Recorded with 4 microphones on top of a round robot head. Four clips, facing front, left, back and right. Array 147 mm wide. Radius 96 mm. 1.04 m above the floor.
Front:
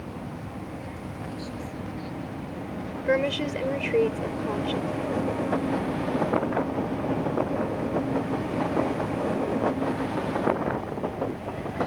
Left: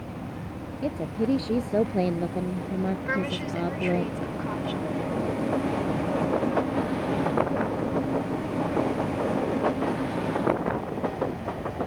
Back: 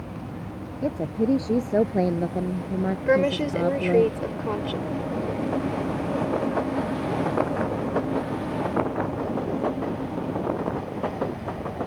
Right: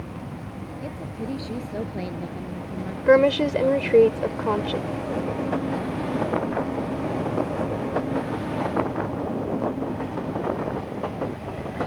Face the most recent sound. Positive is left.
turn(degrees=-100)